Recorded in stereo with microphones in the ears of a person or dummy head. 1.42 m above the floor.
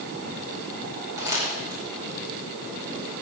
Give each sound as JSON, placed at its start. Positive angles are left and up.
{"t": 1.2, "sound": "crumpling", "side_deg": -25, "distance_m": 5.0}